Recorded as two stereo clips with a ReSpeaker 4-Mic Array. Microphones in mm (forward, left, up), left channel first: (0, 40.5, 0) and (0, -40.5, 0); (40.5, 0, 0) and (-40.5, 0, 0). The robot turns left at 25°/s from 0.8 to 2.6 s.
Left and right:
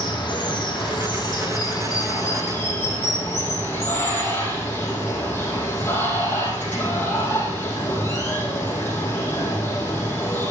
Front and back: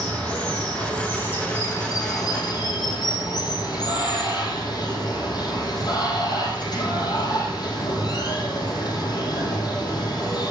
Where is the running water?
75° left, 3.5 m; by 10.5 s 30° left, 3.5 m.